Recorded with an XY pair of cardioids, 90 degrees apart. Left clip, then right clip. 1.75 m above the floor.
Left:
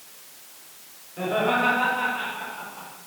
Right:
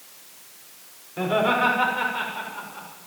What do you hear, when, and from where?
1.2 s laughter: 60° right, 7 m; by 2.9 s 55° right, 8.5 m